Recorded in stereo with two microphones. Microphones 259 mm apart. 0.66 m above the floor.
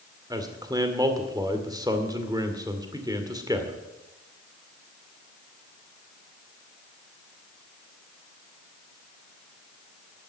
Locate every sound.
0.3 s a man speaking: 15° right (ahead or behind), 2 m